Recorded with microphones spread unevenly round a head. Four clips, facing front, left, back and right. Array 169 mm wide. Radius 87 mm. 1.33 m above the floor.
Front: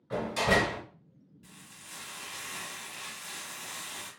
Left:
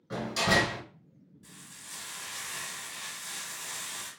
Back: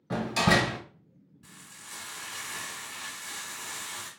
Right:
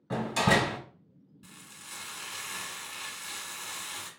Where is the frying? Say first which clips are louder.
Right 2 dB, back 3 dB; 120° right, 1.2 m.